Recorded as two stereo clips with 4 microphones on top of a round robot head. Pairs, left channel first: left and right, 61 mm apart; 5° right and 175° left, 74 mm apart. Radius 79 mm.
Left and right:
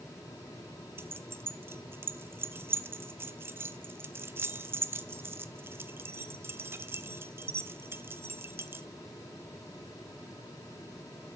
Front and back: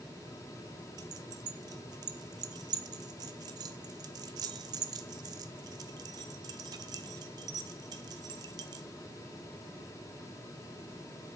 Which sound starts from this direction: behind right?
Keys jangling, at 1.0 s.